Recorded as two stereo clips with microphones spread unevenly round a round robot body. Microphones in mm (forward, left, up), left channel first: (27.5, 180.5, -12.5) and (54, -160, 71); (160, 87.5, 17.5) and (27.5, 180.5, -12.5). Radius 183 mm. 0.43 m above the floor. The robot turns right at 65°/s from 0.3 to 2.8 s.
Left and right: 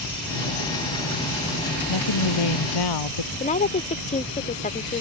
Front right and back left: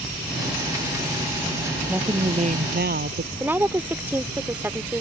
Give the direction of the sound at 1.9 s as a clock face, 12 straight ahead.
10 o'clock.